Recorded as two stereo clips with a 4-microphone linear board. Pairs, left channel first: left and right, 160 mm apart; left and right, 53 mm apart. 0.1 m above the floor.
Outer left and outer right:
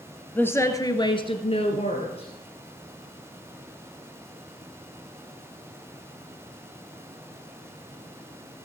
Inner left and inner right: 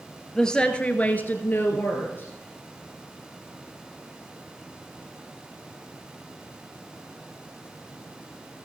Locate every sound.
0.3 s a woman speaking: 10° left (ahead or behind), 1.8 m; by 2.3 s 40° left (ahead or behind), 2.5 m